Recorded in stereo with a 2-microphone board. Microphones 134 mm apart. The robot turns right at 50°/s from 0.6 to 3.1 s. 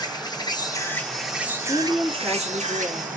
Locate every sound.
0.0 s an insect: 150° left, 0.9 m; by 3.2 s 85° right, 0.9 m
1.7 s a woman speaking: 160° left, 1.0 m; by 3.1 s 130° right, 1.0 m